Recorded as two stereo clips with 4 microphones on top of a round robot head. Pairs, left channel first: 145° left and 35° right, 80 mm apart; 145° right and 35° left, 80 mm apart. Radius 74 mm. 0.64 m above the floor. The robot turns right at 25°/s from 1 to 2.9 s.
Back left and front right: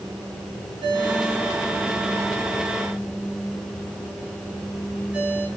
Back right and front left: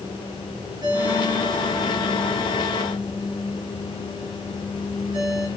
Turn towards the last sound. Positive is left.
turn(degrees=35)